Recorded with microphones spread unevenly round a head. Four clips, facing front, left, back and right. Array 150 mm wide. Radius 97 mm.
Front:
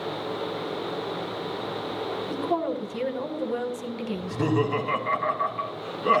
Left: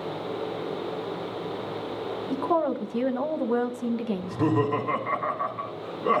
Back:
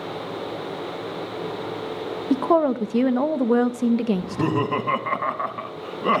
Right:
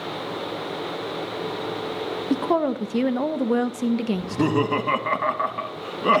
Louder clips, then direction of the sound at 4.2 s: Right 2 dB, back 2 dB; 105° right.